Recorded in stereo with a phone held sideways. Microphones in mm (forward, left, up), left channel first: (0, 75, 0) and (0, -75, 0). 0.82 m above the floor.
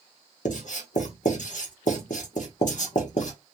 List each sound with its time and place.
0.5 s writing: 60° left (ahead or behind), 0.9 m